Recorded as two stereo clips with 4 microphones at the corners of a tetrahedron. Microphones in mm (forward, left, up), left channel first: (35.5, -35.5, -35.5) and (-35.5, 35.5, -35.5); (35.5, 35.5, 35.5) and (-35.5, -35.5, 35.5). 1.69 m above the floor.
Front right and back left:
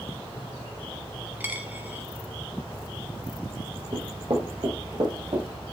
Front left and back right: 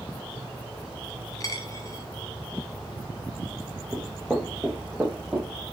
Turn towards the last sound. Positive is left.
turn(degrees=145)